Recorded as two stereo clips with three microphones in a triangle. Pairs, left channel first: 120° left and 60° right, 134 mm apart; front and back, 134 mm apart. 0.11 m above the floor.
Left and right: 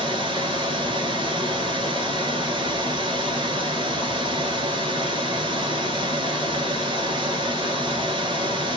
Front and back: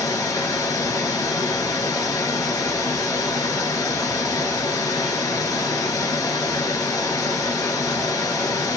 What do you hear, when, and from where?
0.0 s running water: 45° right, 0.9 m